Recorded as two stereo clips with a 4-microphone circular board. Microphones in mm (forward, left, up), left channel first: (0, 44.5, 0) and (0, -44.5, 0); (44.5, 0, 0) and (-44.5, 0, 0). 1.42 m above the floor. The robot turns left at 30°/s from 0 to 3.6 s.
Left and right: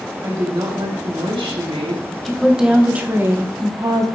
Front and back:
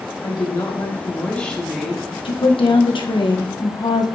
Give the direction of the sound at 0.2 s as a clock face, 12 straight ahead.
1 o'clock.